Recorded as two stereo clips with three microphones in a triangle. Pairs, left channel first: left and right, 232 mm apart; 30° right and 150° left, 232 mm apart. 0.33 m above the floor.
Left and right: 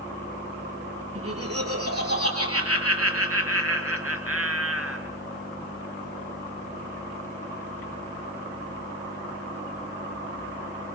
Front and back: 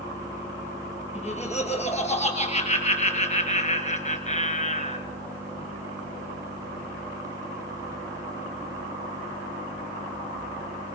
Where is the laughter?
90° right, 7 m.